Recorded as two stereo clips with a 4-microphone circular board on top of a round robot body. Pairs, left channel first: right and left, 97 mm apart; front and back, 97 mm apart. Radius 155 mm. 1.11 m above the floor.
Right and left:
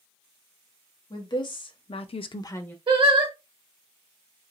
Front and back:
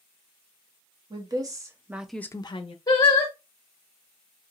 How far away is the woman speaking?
About 1.2 m.